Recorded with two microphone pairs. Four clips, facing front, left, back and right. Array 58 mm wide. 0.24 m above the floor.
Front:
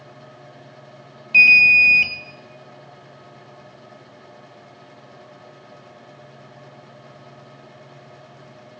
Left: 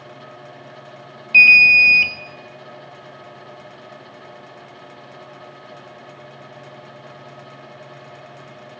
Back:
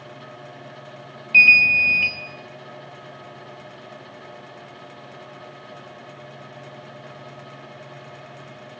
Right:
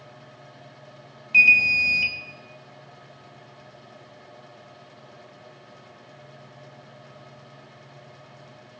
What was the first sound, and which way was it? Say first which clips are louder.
An alarm: left 7 dB, front 2 dB; 80° left.